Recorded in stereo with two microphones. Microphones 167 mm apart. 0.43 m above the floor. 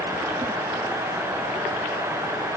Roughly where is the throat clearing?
I don't hear throat clearing.